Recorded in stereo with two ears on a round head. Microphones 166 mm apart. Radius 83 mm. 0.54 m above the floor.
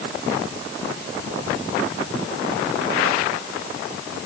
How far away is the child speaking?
I don't hear a child speaking.